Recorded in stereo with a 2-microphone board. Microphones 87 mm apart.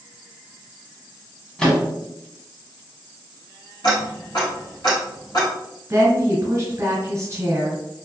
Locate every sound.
1.6 s a microwave: 10° left (ahead or behind), 1.0 m
3.8 s ticking: 55° left (ahead or behind), 1.6 m
5.9 s a woman speaking: 30° right (ahead or behind), 1.3 m